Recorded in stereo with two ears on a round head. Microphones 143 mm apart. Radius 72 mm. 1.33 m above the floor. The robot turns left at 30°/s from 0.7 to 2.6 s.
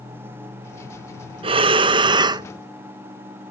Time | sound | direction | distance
1.4 | breathing | 100° right | 0.5 m